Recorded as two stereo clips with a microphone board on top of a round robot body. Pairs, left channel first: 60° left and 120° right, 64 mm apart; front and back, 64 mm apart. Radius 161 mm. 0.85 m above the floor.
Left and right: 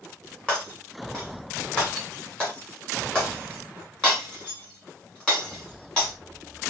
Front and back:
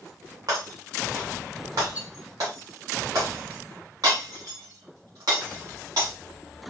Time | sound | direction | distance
0.5 | breaking glass | 135° left | 1.4 m